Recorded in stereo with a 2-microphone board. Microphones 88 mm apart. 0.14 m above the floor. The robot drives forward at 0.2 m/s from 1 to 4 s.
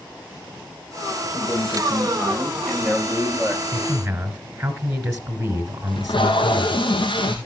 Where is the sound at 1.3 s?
5° right (ahead or behind), 9 m.